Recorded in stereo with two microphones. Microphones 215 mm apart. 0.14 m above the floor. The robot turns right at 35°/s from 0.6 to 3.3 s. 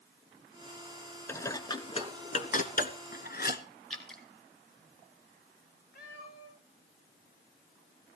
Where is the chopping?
No chopping in this recording.